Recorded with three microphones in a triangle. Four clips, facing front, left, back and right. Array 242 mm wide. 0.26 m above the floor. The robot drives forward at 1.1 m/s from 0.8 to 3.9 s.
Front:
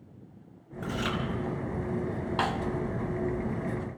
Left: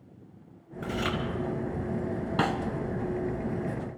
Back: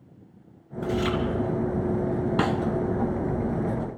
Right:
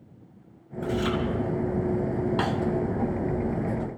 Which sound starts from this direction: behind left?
A snare drum, at 2.4 s.